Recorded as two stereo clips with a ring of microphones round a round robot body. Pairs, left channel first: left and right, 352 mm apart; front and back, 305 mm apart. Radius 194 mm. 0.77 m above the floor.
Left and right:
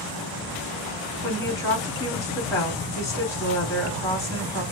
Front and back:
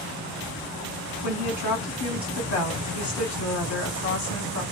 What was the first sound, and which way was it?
A woman speaking, 10° left.